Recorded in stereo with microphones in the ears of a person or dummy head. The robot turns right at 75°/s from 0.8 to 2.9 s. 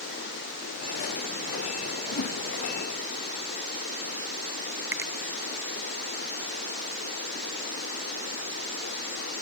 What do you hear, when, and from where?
2.1 s a whoosh: 75° left (ahead or behind), 1.4 m; by 2.4 s 65° left (ahead or behind), 1.4 m
4.9 s a finger snap: 10° right (ahead or behind), 0.7 m